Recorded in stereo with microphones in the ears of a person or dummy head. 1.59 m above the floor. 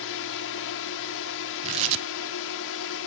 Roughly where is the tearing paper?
Right.